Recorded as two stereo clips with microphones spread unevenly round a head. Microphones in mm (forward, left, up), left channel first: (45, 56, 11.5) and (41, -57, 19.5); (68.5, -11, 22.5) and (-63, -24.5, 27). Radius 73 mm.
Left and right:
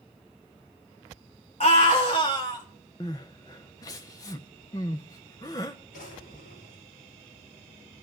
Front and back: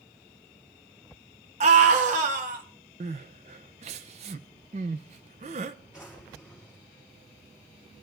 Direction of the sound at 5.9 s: 105° left.